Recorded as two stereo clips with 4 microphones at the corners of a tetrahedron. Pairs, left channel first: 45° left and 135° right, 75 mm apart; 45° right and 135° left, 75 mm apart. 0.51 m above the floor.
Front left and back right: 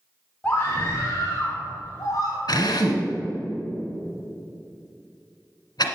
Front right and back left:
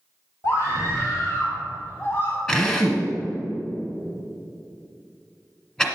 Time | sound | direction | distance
0.4 | a scream | 20° right | 1.4 m
2.5 | a drill | 35° left | 1.4 m